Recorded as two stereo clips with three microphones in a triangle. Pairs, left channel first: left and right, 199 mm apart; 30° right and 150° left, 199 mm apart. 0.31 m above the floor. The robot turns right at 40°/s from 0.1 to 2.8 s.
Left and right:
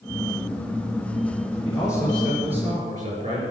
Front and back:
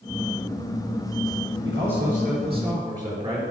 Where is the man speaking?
175° left, 4.5 m; by 3.4 s 140° right, 4.5 m.